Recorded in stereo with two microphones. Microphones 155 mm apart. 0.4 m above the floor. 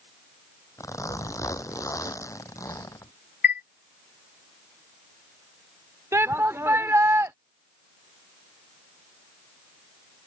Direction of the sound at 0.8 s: 20° left (ahead or behind).